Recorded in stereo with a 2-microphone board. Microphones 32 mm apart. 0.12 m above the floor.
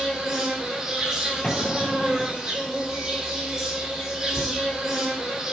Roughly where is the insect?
Right.